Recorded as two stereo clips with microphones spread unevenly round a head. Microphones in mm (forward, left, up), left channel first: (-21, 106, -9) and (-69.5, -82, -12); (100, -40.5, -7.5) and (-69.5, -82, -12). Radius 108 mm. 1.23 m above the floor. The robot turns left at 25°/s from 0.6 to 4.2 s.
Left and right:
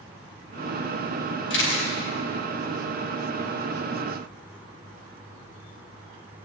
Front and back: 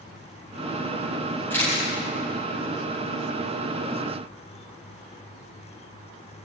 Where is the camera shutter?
95° left, 4.5 m; by 1.9 s 85° left, 4.5 m.